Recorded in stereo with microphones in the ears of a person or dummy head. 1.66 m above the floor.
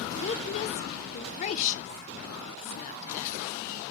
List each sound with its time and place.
0.2 s a woman speaking: 40° left (ahead or behind), 0.8 m